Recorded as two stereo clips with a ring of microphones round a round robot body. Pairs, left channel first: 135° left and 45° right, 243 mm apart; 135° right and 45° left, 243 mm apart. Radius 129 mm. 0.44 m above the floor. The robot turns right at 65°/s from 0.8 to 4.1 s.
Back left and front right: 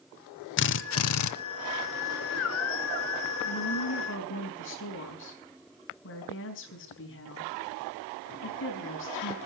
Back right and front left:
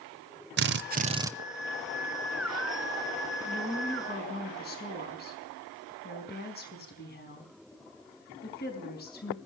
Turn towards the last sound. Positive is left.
turn(degrees=175)